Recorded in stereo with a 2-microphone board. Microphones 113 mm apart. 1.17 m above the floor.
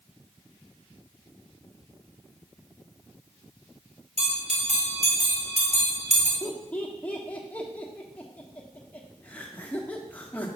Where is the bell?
80° right, 2 m.